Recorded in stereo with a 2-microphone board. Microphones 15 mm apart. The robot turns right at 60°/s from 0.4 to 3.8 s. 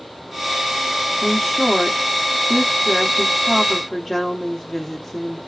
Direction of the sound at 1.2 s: 20° right (ahead or behind).